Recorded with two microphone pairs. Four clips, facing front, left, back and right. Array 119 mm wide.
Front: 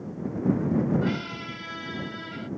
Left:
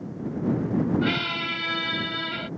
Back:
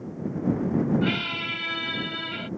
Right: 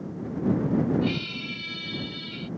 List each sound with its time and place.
1.0 s a squeak: 105° left